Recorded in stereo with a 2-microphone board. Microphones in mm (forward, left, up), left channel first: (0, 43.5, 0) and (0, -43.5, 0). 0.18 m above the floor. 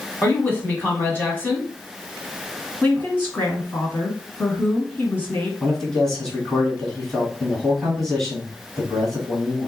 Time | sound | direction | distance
0.2 | a woman speaking | 25° left (ahead or behind) | 1.3 m
2.8 | a woman speaking | 25° left (ahead or behind) | 1.9 m
5.6 | a man speaking | 5° left (ahead or behind) | 1.6 m